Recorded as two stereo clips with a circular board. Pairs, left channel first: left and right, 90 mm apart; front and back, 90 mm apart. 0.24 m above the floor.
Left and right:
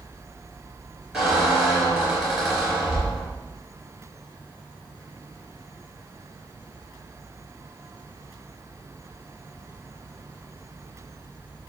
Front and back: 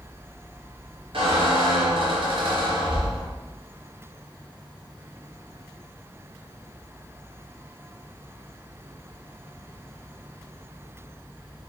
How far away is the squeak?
About 3 m.